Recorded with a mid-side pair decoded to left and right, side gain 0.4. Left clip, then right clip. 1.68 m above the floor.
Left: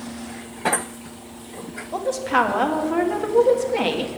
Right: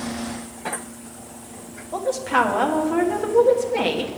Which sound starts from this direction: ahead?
A woman speaking, at 1.9 s.